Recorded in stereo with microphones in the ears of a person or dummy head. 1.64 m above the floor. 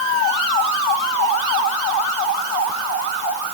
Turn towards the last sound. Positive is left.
No sound to turn to.